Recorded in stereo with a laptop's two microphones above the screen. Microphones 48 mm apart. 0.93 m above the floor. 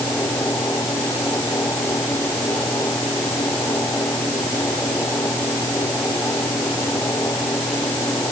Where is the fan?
75° left (ahead or behind).